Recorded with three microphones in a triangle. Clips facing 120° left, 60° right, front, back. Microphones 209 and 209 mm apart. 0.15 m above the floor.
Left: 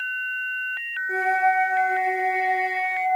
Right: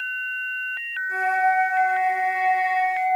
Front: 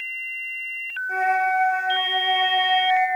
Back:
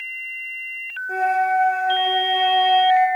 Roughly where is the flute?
Behind left.